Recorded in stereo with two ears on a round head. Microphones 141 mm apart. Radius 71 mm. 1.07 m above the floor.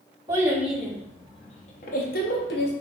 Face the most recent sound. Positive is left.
turn(degrees=75)  # may be behind; listen again after turning